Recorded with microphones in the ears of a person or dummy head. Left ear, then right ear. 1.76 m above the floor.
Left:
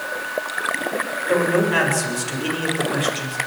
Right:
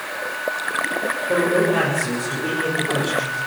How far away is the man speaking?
About 8 m.